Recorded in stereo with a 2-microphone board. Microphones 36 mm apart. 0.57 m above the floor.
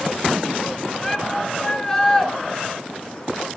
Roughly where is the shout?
Centre.